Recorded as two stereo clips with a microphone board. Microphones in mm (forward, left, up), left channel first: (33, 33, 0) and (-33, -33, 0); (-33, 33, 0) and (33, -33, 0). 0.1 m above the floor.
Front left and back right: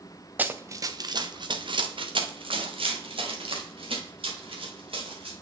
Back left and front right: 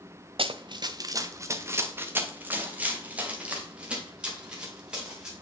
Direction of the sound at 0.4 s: 65° right.